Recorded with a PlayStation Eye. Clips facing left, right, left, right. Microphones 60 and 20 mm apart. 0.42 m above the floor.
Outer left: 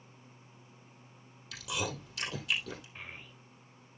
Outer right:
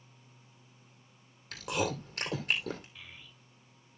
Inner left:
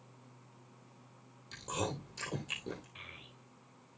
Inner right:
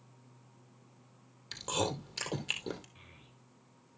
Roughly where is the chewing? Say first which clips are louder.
Outer right 4 dB, inner right 4 dB; right.